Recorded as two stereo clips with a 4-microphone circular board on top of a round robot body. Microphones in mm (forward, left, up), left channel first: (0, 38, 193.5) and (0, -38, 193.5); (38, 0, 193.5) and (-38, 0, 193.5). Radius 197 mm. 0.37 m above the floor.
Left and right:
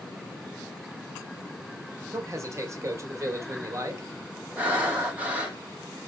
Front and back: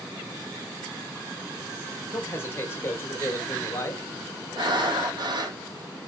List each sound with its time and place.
2.1 s a man speaking: 50° right, 1.9 m
4.6 s breathing: 160° right, 2 m